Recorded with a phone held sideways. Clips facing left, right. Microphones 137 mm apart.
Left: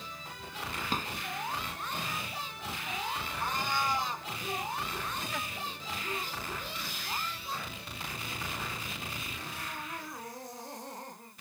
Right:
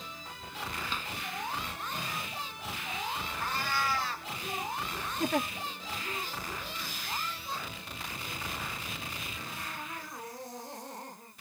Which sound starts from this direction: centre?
A cat meowing, at 3.4 s.